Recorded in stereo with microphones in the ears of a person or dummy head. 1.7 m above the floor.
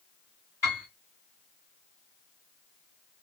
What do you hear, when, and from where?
0.6 s a piano: 15° left (ahead or behind), 2.0 m